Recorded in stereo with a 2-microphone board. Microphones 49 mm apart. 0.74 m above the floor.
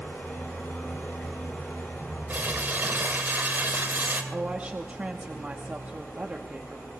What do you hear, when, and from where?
0.0 s an engine running: 40° left (ahead or behind), 7.5 m
2.3 s crumpling: 40° right (ahead or behind), 2.5 m
4.3 s a woman speaking: 30° right (ahead or behind), 1.0 m